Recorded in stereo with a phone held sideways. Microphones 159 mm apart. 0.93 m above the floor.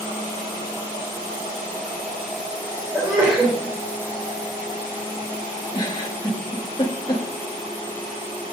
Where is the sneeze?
10° right (ahead or behind), 3.5 m.